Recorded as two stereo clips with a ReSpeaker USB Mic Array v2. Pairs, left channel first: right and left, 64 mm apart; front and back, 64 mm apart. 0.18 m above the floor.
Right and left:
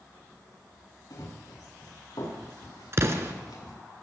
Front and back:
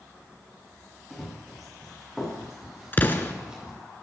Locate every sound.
1.1 s running footsteps: 85° right, 7 m; by 3.7 s 105° right, 6 m
2.9 s an explosion: 55° left, 1.3 m